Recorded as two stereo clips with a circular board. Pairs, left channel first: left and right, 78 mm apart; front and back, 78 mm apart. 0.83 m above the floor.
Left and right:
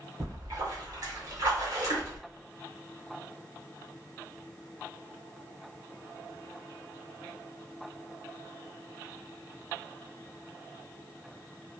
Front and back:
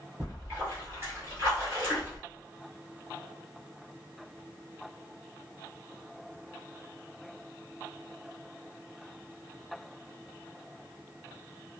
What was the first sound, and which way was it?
A splash, 125° right.